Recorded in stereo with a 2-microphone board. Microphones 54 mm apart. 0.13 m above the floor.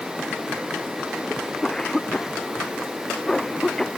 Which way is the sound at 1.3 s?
10° left (ahead or behind).